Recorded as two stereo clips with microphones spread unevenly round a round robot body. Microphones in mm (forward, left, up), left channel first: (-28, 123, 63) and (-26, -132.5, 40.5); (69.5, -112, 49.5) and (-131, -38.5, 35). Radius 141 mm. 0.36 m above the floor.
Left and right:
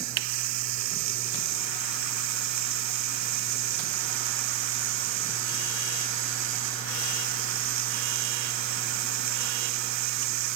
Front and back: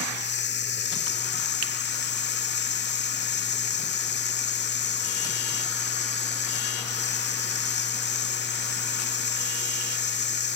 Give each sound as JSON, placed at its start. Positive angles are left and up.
{"t": 0.0, "sound": "running water", "azimuth_deg": -60}